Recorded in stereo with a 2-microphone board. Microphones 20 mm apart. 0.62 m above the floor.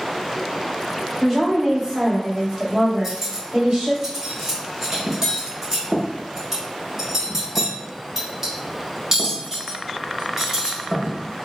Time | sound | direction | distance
1.2 | a woman speaking | 10° right (ahead or behind) | 1.3 m
3.0 | cutlery clinking | 30° right (ahead or behind) | 1.3 m